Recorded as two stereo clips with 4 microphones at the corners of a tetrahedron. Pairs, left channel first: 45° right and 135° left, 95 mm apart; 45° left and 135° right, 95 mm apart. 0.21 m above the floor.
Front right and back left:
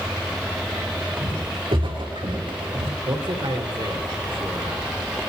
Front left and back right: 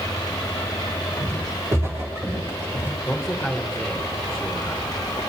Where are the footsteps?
165° left, 5.5 m; by 2.9 s 155° left, 4.5 m.